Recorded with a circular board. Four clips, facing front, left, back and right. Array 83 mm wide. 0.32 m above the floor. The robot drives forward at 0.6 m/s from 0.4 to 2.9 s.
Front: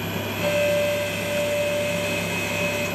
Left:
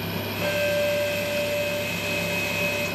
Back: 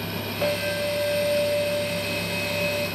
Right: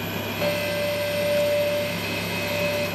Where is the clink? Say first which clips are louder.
Left 2 dB, front 5 dB; 140° right, 6.5 m; by 2.9 s 145° right, 7.5 m.